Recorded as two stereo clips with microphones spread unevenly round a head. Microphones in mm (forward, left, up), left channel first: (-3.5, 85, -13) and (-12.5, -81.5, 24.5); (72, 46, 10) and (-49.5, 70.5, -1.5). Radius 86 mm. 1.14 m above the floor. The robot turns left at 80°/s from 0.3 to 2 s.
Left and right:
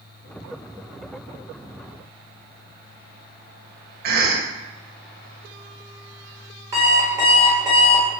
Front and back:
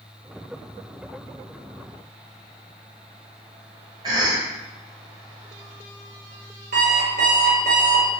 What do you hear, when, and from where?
4.0 s a cough: 125° right, 0.6 m
6.7 s an alarm clock: 160° right, 1.0 m